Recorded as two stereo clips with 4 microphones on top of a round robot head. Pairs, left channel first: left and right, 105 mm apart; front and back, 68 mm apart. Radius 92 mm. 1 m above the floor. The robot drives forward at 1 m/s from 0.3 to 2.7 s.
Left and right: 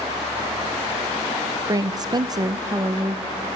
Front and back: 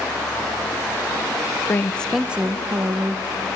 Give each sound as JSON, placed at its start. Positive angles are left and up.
{"t": 1.7, "sound": "a woman speaking", "azimuth_deg": -45, "distance_m": 0.8}